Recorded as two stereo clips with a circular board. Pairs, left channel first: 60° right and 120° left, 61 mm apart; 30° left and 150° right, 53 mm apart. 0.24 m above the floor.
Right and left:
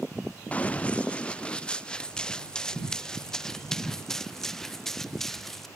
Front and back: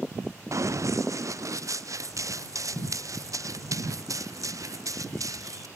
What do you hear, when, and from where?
0.5 s running footsteps: 130° right; by 5.7 s 145° right